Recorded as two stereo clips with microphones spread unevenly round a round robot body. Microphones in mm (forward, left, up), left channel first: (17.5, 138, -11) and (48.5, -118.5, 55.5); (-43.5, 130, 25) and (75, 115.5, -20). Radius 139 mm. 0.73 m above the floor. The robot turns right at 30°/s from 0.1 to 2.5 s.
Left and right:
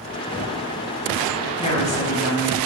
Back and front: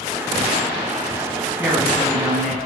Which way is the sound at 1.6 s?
50° left.